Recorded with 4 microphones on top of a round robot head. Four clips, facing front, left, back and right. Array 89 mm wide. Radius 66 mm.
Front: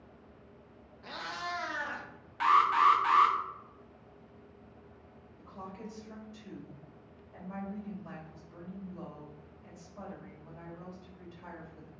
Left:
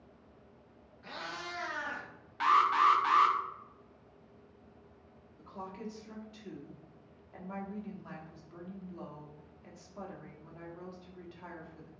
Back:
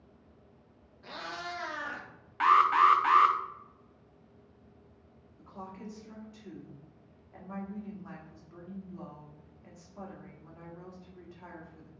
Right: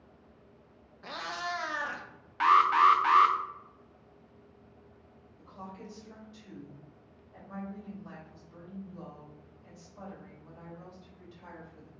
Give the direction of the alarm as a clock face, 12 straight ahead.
5 o'clock.